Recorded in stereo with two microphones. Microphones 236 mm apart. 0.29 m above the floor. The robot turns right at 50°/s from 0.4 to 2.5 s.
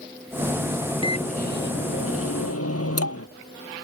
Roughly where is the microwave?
Ahead.